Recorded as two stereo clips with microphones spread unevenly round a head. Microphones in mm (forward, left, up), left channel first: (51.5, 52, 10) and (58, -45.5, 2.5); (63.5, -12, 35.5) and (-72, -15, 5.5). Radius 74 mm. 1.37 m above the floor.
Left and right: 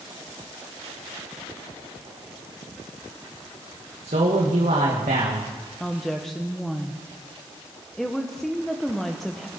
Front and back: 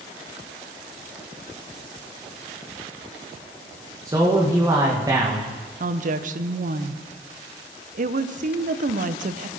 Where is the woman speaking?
175° right, 0.9 m.